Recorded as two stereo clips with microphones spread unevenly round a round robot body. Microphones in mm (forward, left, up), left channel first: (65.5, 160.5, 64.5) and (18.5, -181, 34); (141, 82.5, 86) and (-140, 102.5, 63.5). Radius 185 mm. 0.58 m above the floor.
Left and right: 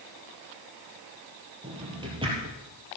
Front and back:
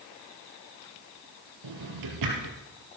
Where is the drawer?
175° right, 3.5 m.